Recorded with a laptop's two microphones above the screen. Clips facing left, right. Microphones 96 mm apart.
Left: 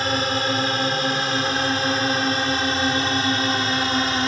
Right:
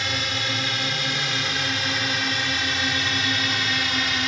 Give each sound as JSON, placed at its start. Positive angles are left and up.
{"t": 0.0, "sound": "a drone", "side_deg": 40}